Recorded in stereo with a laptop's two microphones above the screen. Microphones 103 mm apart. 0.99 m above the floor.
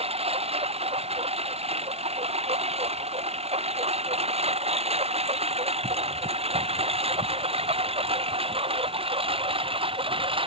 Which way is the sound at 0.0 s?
75° right (ahead or behind).